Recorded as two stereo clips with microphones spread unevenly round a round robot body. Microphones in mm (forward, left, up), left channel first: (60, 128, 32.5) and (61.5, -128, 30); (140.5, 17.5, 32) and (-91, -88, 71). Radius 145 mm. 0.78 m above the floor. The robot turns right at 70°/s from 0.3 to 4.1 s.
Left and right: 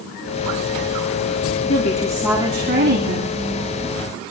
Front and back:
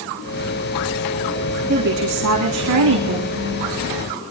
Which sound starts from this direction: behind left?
A woman speaking, at 1.7 s.